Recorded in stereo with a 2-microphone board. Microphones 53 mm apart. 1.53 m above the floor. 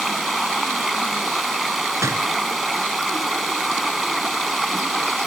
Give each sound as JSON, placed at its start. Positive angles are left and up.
{"t": 0.0, "sound": "running water", "side_deg": 0}
{"t": 2.0, "sound": "a door slam", "side_deg": -70}